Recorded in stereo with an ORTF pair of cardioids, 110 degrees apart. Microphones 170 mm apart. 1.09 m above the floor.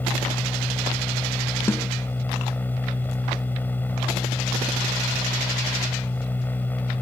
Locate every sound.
0.0 s a machine running: 10° left
1.7 s a snare drum: 15° left